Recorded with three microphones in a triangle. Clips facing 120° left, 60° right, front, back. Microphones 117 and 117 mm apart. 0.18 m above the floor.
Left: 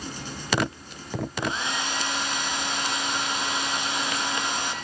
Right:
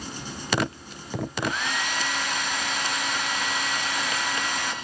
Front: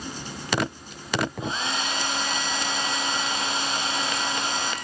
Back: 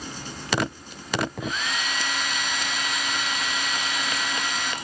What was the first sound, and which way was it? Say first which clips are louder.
A hair dryer: right 1 dB, front 1 dB; 60° left.